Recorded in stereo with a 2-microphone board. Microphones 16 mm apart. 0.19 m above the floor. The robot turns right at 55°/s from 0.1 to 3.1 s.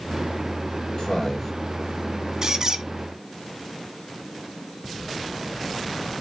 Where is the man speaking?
55° left (ahead or behind), 6.5 m; by 1.5 s 30° left (ahead or behind), 6.5 m.